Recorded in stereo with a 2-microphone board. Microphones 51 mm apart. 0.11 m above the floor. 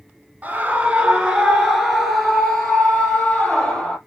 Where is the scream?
30° right (ahead or behind), 1.3 m; by 4.0 s 15° left (ahead or behind), 3 m.